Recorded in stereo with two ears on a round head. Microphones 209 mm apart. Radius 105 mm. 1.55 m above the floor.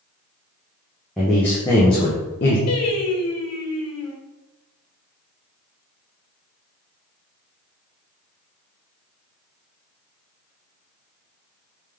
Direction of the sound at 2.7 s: 80° left.